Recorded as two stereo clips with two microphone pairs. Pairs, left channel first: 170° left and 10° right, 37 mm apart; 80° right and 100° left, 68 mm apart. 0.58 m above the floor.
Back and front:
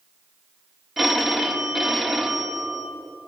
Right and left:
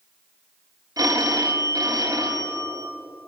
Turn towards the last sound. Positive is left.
turn(degrees=75)